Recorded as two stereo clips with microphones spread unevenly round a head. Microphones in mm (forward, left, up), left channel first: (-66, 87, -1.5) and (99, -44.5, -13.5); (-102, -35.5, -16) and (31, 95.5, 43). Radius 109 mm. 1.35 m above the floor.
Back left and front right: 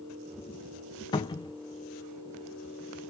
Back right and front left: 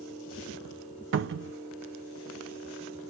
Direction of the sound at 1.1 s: 70° left.